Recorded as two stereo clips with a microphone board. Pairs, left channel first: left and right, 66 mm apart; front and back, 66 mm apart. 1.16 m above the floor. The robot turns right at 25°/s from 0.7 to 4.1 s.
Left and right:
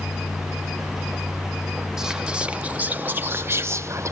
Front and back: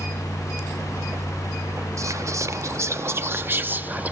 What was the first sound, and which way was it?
Whispering, 170° right.